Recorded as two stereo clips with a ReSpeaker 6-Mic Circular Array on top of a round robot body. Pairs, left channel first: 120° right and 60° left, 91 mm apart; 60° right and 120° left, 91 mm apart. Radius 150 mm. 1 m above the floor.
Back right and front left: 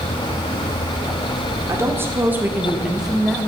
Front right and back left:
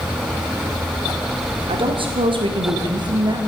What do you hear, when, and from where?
1.7 s a woman speaking: 120° left, 2 m; by 3.4 s 155° left, 1.6 m